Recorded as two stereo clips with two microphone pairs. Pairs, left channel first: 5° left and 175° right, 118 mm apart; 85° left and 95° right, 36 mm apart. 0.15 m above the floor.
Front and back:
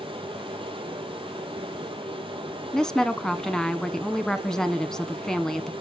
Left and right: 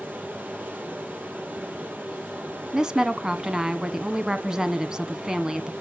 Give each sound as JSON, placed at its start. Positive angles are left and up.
{"t": 0.0, "sound": "running water", "azimuth_deg": -130, "distance_m": 4.0}
{"t": 2.7, "sound": "a woman speaking", "azimuth_deg": -70, "distance_m": 1.1}